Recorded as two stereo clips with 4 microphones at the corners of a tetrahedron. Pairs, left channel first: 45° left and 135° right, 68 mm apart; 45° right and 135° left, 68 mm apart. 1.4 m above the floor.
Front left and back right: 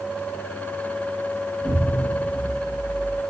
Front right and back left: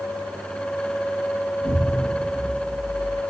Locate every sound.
1.6 s an explosion: 130° left, 4.5 m